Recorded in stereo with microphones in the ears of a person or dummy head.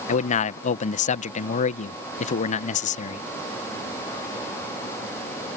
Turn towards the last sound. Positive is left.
turn(degrees=40)  # may be behind; listen again after turning